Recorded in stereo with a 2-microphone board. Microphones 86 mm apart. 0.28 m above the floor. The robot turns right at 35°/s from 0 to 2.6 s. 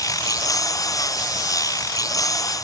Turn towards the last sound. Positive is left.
No sound to turn to.